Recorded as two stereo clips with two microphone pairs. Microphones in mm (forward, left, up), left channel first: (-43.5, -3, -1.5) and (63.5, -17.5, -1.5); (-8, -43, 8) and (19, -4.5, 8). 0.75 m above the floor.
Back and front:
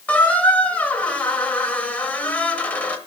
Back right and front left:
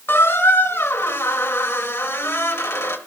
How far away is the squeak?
About 0.9 m.